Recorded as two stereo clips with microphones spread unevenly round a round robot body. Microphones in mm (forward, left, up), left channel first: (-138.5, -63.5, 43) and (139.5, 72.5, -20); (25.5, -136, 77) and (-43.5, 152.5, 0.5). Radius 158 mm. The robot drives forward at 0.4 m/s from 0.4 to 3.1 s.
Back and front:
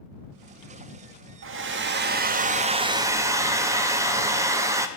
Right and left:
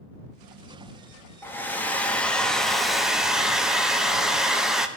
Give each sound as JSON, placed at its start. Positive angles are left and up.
{"t": 1.4, "sound": "a hair dryer", "azimuth_deg": 15, "distance_m": 1.2}